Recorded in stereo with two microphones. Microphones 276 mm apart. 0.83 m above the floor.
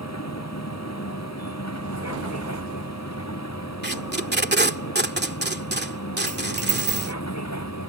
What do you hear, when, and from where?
0.0 s a vehicle: 70° left (ahead or behind)
3.8 s tape being pulled: 40° right (ahead or behind)
6.3 s a dropped coin: 70° right (ahead or behind)